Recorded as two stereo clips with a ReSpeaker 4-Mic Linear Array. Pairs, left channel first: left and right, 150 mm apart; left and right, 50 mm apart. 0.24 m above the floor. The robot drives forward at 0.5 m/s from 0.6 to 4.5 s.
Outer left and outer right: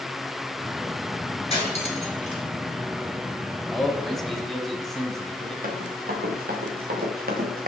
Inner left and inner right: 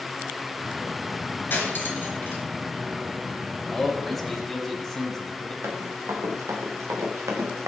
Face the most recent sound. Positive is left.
turn(degrees=-75)  # may be behind; listen again after turning